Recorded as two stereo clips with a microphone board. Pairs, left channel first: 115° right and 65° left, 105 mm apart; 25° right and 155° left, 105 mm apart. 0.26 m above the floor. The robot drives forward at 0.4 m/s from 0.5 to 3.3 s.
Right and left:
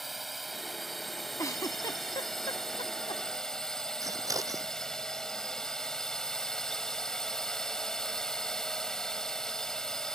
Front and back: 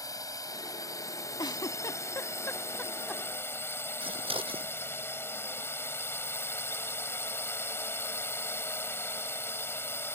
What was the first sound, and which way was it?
A drone, 20° right.